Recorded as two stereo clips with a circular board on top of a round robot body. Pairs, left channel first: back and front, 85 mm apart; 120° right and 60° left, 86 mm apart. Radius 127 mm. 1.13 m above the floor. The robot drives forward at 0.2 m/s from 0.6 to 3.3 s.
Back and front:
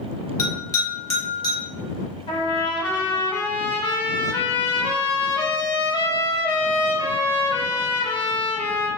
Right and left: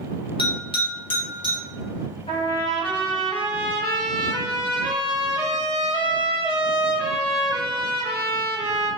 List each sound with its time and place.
0.4 s a bell: 130° right, 1.4 m; by 1.6 s 135° right, 1.6 m
2.3 s a trumpet: 150° right, 0.8 m; by 8.9 s 155° right, 0.9 m